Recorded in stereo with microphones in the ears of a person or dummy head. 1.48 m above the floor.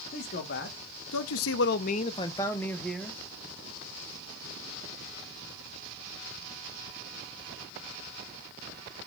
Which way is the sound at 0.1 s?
50° left (ahead or behind).